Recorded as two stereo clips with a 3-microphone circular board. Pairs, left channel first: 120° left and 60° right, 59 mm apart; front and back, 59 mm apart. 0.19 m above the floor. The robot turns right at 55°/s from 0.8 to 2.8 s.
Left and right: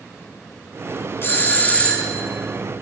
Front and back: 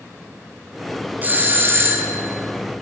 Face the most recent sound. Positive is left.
turn(degrees=-130)